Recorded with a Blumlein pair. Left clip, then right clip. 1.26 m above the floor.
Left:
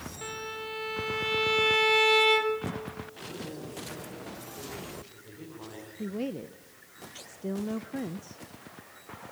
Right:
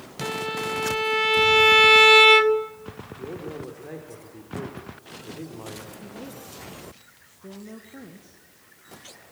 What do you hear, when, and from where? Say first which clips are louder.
0.2 s a violin: right 10 dB; 65° right, 0.8 m
3.2 s a man speaking: right 8 dB; 30° right, 4 m
6.0 s a woman speaking: left 5 dB; 65° left, 0.7 m